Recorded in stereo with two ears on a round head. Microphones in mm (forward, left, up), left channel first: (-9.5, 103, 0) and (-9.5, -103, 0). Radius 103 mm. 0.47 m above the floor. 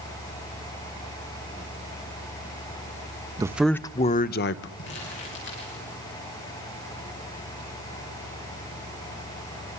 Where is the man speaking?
15° right (ahead or behind), 0.8 m; by 4.7 s 55° left (ahead or behind), 1.2 m.